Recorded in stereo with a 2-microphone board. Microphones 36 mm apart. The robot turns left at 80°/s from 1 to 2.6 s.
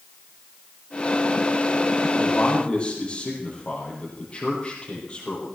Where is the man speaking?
70° left, 6.5 m; by 5.5 s 35° left, 6.5 m.